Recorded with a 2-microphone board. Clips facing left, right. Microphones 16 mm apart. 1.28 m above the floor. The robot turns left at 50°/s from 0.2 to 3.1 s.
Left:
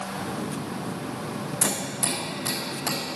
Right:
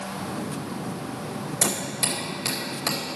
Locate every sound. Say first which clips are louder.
1.6 s hammering: right 2 dB; 85° right, 4.5 m; by 3.2 s 20° right (ahead or behind), 4.5 m